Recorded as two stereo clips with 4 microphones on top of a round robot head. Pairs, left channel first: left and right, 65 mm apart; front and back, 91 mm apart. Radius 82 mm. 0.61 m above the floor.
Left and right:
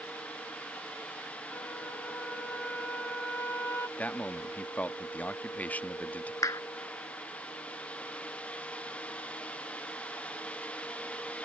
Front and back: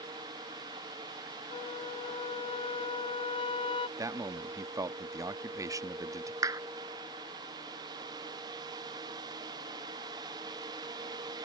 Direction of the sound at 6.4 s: 125° left.